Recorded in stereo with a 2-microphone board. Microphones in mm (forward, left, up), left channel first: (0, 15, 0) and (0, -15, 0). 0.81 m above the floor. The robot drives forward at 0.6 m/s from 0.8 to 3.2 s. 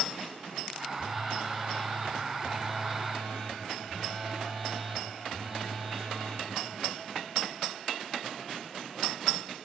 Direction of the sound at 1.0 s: 5° left (ahead or behind).